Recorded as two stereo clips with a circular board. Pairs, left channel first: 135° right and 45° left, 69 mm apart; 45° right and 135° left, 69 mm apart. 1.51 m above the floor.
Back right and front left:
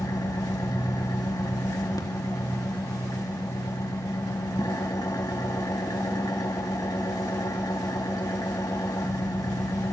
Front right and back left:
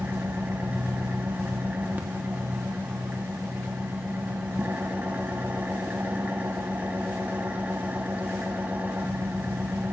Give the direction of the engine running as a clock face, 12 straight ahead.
5 o'clock.